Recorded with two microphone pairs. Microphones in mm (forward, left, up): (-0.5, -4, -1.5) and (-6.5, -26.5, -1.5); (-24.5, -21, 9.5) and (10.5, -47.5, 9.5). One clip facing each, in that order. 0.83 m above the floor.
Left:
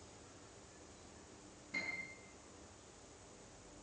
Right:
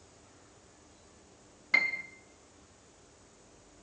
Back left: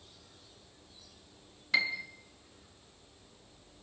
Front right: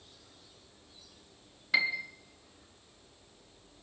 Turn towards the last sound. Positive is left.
turn(degrees=-120)